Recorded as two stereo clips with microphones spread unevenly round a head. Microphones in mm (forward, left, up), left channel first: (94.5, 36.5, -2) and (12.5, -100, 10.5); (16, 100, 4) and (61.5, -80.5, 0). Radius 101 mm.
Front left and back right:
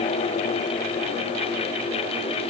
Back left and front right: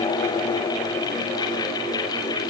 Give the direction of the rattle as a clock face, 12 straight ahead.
No rattle in this recording.